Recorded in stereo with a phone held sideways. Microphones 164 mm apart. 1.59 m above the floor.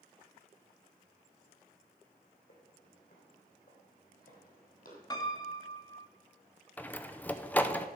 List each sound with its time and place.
2.5 s footsteps: 55° left (ahead or behind), 4.5 m; by 5.0 s 60° left (ahead or behind), 3 m
5.1 s a piano: 25° left (ahead or behind), 1.1 m
6.8 s a door slam: 10° left (ahead or behind), 0.5 m